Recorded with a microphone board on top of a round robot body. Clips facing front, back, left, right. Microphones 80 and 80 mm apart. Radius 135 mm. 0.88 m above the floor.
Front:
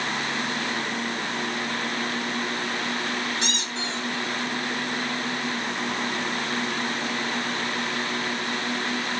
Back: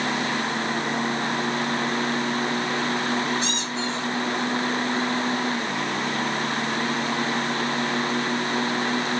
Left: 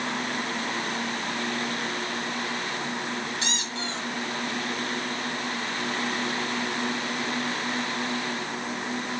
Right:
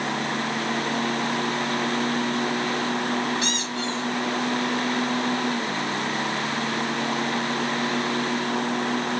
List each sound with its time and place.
3.4 s a squeak: 25° left, 3.5 m